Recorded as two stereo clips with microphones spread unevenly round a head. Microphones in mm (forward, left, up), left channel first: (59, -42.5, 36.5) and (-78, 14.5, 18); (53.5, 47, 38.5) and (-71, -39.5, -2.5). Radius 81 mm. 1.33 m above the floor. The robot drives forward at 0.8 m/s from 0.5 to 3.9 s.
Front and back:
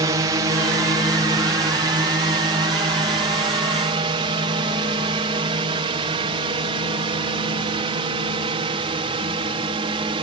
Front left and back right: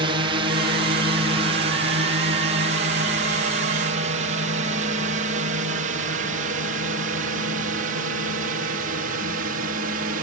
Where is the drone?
155° right; by 10.2 s 150° right.